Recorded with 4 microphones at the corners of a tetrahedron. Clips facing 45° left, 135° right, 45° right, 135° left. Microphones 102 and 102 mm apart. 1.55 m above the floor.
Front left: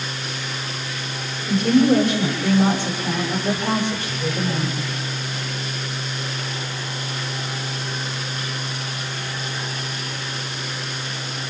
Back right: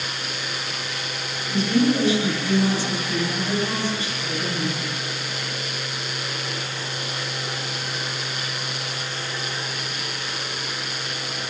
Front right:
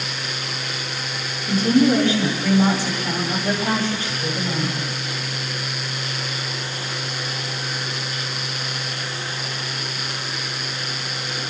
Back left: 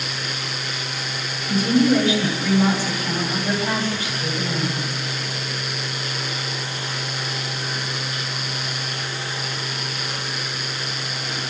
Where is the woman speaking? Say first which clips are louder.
Front left 4 dB, front right 1 dB; 10° left, 9 m.